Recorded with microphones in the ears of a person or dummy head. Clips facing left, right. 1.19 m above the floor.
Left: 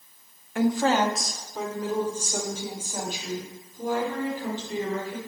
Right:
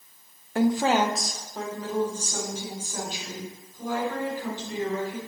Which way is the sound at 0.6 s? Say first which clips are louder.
Even; 30° right (ahead or behind).